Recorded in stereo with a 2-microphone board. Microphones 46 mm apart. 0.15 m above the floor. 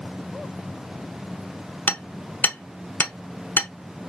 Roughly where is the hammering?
Left.